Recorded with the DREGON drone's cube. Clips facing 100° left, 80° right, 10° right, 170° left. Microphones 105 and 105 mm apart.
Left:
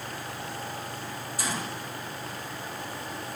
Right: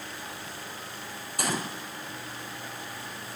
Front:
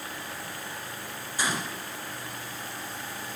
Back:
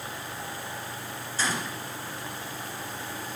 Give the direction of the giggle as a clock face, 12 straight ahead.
No giggle in this recording.